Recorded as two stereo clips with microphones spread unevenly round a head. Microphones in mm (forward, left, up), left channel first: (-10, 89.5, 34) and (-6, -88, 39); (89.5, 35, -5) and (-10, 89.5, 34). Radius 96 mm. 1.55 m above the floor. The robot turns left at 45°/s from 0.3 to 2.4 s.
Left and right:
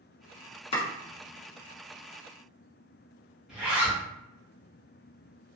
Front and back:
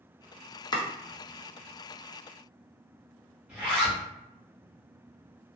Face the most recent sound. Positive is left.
turn(degrees=-170)